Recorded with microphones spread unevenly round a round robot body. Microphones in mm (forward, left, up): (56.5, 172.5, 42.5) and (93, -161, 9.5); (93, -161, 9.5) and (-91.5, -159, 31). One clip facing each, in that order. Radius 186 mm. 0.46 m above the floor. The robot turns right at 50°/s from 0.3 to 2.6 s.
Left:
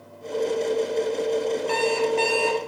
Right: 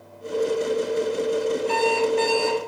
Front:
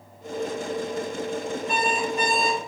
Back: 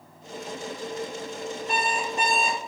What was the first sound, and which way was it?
An alarm clock, 115° left.